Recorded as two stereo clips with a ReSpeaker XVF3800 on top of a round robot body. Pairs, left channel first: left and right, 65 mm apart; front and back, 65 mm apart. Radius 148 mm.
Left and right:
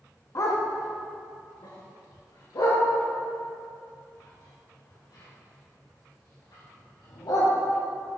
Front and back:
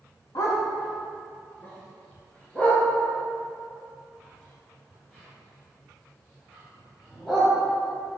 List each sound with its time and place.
0.3 s a dog barking: 45° left, 1.4 m; by 7.5 s 85° left, 6 m